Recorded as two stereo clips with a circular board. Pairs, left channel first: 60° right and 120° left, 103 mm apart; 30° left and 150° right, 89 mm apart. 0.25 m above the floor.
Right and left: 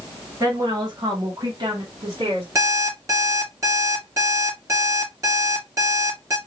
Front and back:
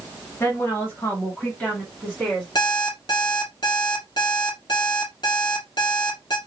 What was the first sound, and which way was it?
A woman speaking, 75° left.